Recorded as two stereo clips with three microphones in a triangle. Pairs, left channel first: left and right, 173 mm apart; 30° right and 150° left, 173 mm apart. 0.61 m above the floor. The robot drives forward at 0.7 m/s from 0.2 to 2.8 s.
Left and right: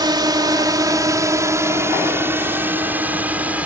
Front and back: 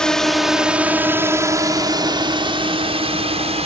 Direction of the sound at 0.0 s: 110° right.